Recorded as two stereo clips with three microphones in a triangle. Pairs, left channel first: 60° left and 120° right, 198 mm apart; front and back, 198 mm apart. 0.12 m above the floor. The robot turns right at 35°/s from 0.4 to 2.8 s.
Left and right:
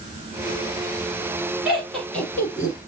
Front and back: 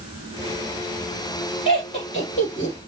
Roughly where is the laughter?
Ahead right.